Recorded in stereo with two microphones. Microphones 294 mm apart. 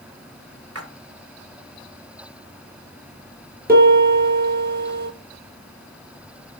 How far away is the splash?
About 1.1 m.